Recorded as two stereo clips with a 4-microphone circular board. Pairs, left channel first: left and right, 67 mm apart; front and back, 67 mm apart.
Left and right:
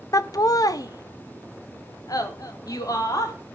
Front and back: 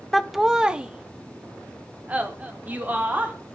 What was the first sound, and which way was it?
Laughter, 85° left.